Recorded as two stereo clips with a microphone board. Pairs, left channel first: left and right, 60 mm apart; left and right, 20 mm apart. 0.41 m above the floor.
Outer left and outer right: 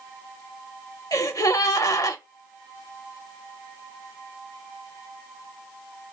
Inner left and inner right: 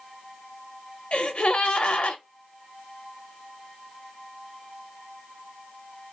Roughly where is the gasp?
Left.